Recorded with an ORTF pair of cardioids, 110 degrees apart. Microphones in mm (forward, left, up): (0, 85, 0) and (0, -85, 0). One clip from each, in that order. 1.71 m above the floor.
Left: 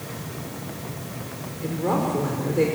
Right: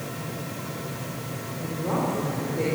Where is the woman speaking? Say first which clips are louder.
Left 3 dB; 45° left, 5 m.